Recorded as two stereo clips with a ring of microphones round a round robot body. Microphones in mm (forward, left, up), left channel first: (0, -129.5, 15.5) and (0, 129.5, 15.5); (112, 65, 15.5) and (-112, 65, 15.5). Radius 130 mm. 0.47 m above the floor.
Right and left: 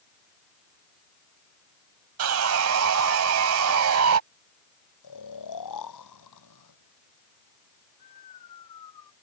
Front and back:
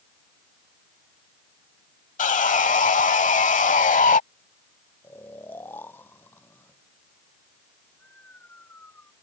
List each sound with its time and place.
2.2 s sawing: 55° left
5.0 s snoring: 85° right